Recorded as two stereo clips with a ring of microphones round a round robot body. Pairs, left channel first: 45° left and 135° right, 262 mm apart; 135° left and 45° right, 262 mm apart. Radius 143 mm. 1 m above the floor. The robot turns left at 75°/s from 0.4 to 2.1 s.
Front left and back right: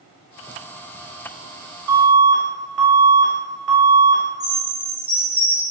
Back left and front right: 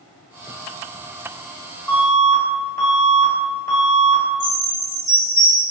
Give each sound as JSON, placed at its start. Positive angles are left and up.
{"t": 1.9, "sound": "an alarm", "azimuth_deg": -145, "distance_m": 1.0}
{"t": 4.4, "sound": "a chime", "azimuth_deg": -25, "distance_m": 0.9}